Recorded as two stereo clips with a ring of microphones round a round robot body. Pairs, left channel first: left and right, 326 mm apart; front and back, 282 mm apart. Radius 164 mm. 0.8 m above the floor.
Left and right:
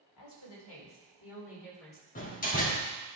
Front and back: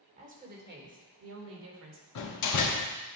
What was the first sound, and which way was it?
A woman speaking, 115° left.